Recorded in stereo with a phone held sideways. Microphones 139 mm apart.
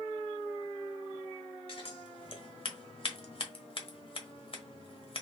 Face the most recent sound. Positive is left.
turn(degrees=45)  # may be behind; listen again after turning